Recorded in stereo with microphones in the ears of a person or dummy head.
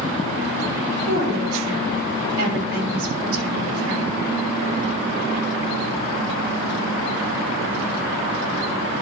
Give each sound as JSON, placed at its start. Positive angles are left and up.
{"t": 1.0, "sound": "a woman speaking", "side_deg": -80, "distance_m": 3.5}